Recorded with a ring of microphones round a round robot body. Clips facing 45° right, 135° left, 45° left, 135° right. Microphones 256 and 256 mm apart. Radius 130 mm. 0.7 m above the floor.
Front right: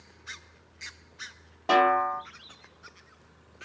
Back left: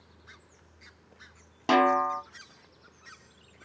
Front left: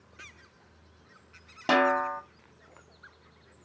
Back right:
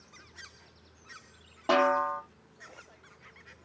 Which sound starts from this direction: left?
A snare drum, at 1.7 s.